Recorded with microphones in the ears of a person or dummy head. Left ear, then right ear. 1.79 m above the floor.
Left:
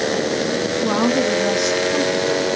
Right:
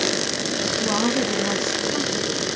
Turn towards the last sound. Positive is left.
turn(degrees=35)  # may be behind; listen again after turning